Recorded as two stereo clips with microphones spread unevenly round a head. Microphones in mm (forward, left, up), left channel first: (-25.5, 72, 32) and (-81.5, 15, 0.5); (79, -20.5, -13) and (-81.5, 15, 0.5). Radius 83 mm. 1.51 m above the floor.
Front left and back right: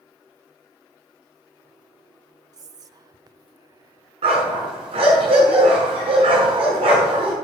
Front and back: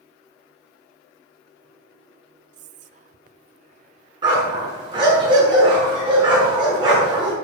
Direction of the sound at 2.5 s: 145° right.